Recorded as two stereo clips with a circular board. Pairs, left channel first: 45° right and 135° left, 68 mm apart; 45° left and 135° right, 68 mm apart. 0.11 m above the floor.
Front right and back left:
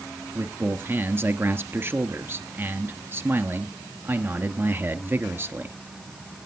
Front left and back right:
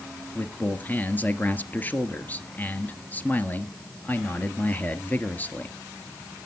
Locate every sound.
0.3 s a man speaking: 100° left, 1.5 m